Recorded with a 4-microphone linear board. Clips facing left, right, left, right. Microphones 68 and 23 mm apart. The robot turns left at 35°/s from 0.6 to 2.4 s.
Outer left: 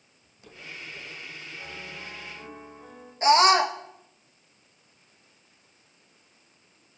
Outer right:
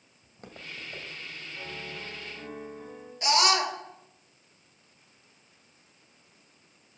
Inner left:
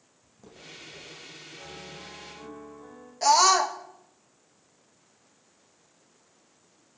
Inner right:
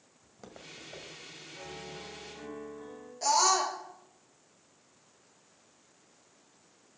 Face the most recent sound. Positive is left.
turn(degrees=35)  # may be behind; listen again after turning